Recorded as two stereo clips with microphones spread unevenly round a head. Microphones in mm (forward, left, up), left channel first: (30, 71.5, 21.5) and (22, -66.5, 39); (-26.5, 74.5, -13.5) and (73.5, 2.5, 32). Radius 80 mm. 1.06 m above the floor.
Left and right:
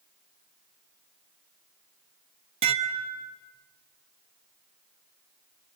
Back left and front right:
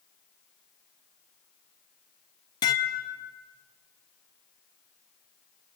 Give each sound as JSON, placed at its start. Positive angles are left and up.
{"t": 2.6, "sound": "dishes clattering", "azimuth_deg": -150, "distance_m": 0.9}